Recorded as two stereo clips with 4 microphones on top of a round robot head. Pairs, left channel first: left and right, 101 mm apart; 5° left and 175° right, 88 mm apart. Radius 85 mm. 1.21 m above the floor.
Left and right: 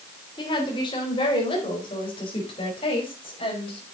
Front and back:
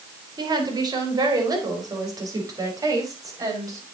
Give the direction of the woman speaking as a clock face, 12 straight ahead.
7 o'clock.